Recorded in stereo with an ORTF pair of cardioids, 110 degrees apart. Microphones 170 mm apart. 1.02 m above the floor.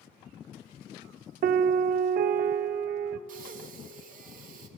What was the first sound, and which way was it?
A piano, 55° right.